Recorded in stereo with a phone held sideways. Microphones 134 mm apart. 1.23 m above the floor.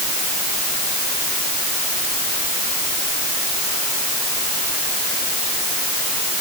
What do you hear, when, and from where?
Only background noise.